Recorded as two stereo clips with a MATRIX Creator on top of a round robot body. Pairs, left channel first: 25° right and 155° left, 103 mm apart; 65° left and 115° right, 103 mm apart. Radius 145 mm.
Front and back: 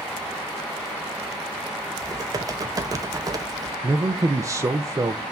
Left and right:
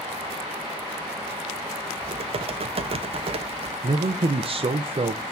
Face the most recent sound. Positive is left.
turn(degrees=-145)